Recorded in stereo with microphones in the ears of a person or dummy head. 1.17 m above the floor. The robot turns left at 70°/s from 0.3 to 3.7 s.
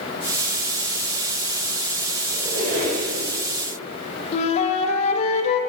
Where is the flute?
35° left (ahead or behind), 0.7 m.